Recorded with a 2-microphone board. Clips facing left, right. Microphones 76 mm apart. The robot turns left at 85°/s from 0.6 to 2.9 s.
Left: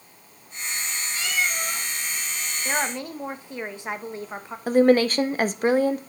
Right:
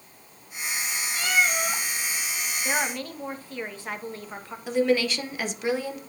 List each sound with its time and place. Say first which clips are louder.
1.1 s a cat meowing: right 3 dB; 40° right, 1.8 m; by 1.8 s 100° right, 1.8 m
2.6 s a woman speaking: left 1 dB; centre (ahead or behind), 1.1 m; by 4.6 s 20° left (ahead or behind), 1.1 m
4.7 s a woman speaking: left 6 dB; 45° left (ahead or behind), 0.7 m